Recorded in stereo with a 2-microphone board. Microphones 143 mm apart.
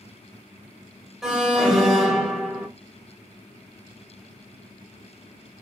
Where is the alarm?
5° right (ahead or behind), 1.5 m.